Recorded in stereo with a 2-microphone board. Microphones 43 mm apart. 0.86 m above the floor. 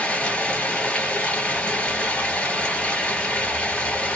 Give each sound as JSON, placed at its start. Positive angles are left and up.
{"t": 0.0, "sound": "running water", "side_deg": 25, "distance_m": 1.4}